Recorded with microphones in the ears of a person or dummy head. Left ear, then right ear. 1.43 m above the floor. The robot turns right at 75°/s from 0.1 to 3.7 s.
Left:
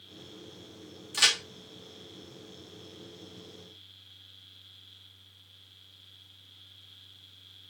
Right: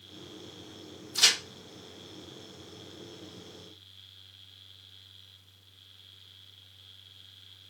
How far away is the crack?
About 1.1 m.